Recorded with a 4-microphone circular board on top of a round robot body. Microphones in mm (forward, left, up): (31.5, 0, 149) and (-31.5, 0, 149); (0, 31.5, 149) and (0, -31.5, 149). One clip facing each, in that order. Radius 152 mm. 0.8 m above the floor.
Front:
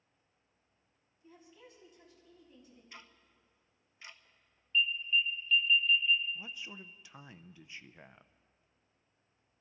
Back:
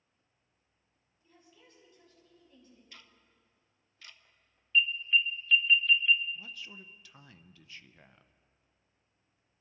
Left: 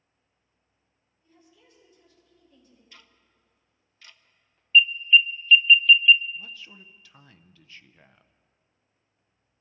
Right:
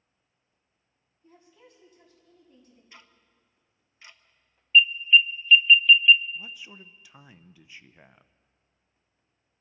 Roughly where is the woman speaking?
Right.